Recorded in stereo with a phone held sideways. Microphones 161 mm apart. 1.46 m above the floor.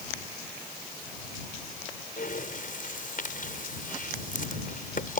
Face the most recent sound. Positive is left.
turn(degrees=60)  # may be behind; listen again after turning